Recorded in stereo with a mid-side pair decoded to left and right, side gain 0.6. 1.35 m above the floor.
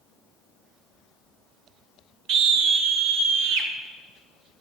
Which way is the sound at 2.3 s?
65° right.